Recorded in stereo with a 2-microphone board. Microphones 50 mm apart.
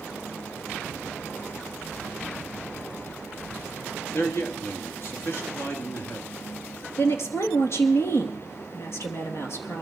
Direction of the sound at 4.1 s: 45° left (ahead or behind).